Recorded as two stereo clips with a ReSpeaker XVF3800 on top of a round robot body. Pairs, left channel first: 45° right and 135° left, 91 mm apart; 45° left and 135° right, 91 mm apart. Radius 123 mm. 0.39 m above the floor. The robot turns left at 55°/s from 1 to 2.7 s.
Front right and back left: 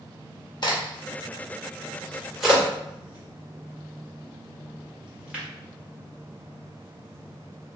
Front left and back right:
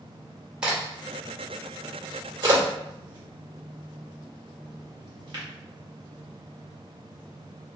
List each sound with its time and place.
0.6 s a crack: 55° right, 1.8 m; by 5.4 s 150° right, 1.8 m